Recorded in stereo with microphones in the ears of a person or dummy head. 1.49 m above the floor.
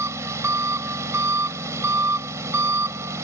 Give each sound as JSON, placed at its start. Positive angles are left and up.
{"t": 0.0, "sound": "an engine running", "side_deg": -15}